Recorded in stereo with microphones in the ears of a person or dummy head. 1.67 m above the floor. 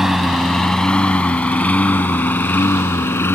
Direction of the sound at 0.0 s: 5° right (ahead or behind).